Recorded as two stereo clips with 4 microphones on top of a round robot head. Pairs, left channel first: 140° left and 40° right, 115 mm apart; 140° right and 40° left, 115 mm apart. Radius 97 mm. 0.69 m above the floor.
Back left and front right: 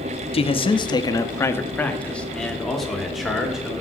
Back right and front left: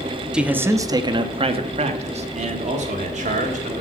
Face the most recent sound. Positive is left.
turn(degrees=45)